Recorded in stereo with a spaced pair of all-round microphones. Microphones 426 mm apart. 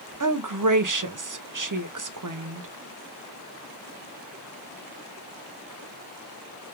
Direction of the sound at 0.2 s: 50° right (ahead or behind).